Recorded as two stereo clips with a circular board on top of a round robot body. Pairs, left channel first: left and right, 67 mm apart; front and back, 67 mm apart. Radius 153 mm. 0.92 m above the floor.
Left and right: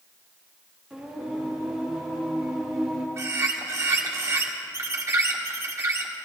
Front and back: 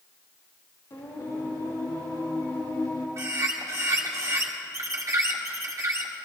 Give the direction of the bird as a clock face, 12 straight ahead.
5 o'clock.